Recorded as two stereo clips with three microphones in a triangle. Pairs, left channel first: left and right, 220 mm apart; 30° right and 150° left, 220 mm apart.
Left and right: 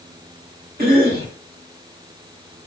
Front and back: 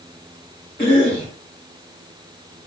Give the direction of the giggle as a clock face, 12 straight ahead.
No giggle in this recording.